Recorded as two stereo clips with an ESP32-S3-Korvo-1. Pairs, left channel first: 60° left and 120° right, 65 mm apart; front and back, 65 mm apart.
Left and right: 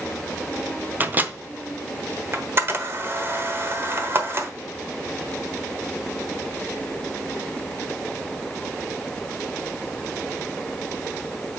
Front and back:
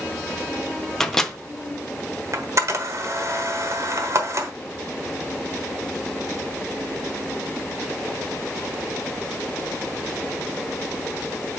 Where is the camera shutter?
160° right, 1.1 m.